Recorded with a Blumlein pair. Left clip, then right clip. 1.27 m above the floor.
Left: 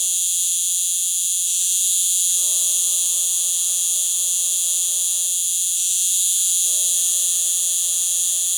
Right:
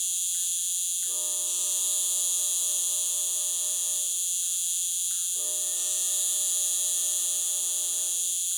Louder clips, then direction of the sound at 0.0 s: Left 8 dB; 25° left.